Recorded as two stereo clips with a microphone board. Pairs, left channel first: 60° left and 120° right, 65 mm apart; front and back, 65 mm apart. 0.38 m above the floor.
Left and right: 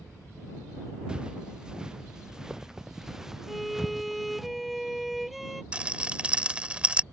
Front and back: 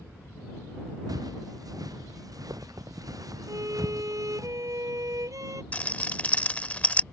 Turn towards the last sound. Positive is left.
turn(degrees=-60)